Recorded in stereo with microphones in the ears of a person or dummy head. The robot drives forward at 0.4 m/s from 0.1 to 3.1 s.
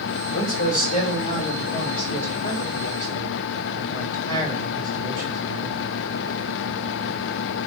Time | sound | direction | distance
0.3 | a man speaking | 40° left (ahead or behind) | 2 m